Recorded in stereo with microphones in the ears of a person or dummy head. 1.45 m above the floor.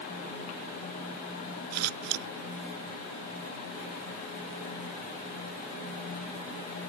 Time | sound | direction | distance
1.7 | scissors | 80° right | ?